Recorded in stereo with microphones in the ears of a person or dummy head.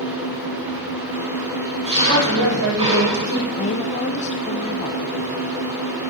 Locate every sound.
0.0 s an engine running: 35° right (ahead or behind), 6 m
2.0 s a woman speaking: 80° right, 8 m
3.6 s a woman speaking: 35° left (ahead or behind), 0.8 m